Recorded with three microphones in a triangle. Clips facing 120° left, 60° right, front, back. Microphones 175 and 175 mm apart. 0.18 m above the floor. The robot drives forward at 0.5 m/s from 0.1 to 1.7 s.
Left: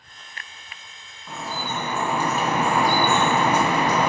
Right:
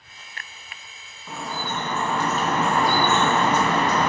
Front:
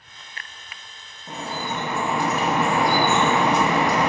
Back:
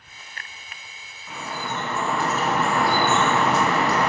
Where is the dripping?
30° left, 0.6 m; by 4.1 s 55° left, 0.5 m.